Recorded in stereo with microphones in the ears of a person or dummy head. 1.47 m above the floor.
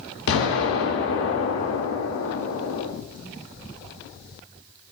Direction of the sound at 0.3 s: 75° left (ahead or behind).